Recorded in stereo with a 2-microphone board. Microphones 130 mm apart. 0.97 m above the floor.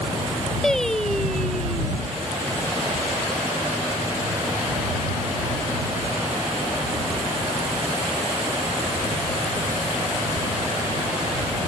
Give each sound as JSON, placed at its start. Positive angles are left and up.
{"t": 0.6, "sound": "singing", "side_deg": 5}